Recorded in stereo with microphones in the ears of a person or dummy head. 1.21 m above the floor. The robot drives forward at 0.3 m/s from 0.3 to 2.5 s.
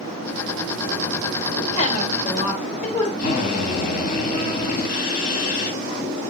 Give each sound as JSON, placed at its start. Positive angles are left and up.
{"t": 1.7, "sound": "a woman speaking", "side_deg": 40, "distance_m": 4.5}
{"t": 3.2, "sound": "a drill", "side_deg": 55, "distance_m": 3.0}